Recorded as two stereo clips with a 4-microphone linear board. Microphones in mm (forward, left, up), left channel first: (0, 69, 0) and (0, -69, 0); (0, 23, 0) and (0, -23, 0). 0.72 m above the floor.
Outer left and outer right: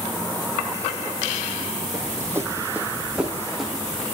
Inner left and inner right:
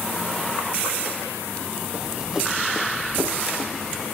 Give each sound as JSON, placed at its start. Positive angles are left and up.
{"t": 1.9, "sound": "running footsteps", "side_deg": -25, "distance_m": 1.8}